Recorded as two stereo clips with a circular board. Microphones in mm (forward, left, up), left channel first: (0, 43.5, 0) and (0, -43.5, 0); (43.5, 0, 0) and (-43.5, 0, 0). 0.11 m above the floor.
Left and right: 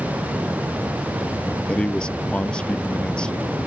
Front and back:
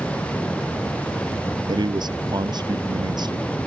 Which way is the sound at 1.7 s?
170° left.